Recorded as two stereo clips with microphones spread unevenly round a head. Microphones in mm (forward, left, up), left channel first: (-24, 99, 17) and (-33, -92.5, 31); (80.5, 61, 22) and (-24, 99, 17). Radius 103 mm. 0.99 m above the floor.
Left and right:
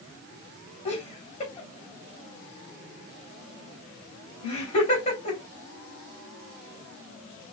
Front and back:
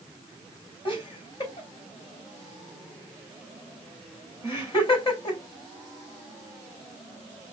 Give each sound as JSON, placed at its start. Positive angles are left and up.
{"t": 0.8, "sound": "laughter", "azimuth_deg": 25, "distance_m": 3.0}